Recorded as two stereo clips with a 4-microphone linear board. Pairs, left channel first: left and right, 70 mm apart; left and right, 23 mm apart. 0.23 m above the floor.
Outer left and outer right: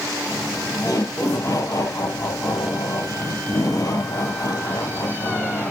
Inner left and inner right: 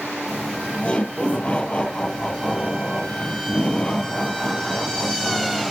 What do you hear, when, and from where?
0.3 s laughter: 50° left (ahead or behind), 6 m